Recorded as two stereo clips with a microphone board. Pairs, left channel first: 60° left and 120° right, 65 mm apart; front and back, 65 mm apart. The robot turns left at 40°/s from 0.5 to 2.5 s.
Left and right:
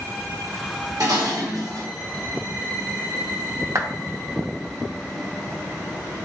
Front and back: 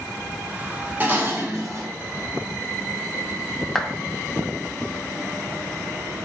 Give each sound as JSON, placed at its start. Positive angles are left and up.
{"t": 1.0, "sound": "dishes clattering", "azimuth_deg": -120, "distance_m": 1.2}
{"t": 3.8, "sound": "a clap", "azimuth_deg": -85, "distance_m": 0.8}